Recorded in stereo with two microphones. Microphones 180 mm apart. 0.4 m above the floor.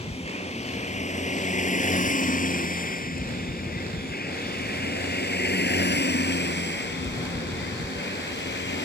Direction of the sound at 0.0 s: 35° left (ahead or behind).